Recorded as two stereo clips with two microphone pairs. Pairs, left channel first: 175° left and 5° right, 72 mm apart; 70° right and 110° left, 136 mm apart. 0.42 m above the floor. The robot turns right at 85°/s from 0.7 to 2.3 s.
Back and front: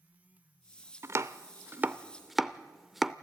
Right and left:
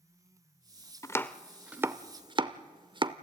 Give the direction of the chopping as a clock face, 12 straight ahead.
1 o'clock.